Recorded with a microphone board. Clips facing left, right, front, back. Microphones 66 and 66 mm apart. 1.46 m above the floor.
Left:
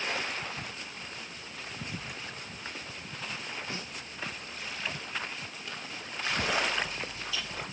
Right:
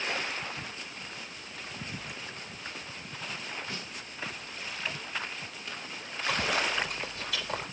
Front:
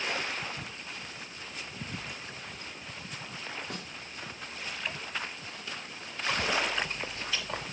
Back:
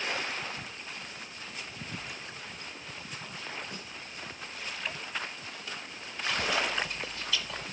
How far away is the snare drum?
About 4 m.